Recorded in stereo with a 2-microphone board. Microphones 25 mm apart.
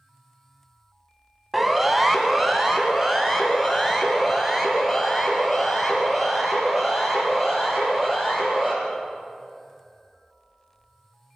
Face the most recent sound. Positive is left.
turn(degrees=-5)  # may be behind; listen again after turning